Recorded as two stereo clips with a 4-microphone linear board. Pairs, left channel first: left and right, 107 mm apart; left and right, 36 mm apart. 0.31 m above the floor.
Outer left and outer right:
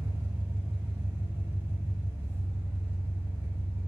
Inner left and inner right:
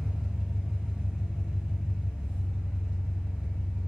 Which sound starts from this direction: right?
An engine running, at 0.0 s.